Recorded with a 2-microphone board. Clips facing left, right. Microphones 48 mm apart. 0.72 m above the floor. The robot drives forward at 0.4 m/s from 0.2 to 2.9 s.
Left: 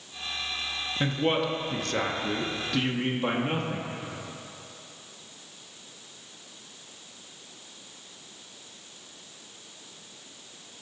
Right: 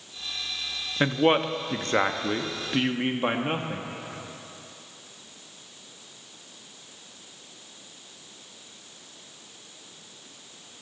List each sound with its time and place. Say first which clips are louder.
1.0 s a man speaking: right 5 dB; 35° right (ahead or behind), 0.7 m; by 3.9 s 30° right (ahead or behind), 0.8 m